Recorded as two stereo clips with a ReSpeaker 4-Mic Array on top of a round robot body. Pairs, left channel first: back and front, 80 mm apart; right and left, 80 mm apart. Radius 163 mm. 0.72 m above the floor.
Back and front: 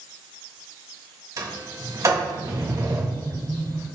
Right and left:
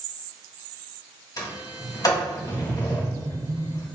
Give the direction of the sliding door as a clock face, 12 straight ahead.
2 o'clock.